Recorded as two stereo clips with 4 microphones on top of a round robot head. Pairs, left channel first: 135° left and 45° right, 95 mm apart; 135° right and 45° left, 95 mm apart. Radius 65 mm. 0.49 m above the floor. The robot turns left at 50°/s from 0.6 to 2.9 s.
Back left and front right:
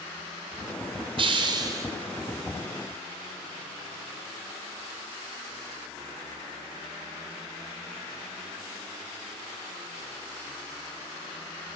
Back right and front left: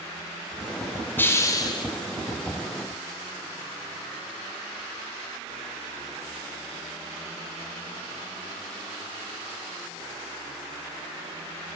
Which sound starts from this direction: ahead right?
A hiss, at 1.2 s.